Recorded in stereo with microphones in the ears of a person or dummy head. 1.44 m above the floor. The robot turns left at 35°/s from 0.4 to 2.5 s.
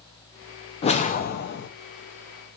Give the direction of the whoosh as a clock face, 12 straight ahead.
7 o'clock.